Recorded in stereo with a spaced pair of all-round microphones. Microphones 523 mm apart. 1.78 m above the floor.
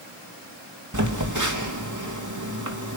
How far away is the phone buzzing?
About 3 m.